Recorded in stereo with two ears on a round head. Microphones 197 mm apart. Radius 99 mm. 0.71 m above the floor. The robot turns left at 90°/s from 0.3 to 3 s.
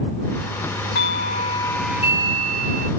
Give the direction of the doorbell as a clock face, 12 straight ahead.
9 o'clock.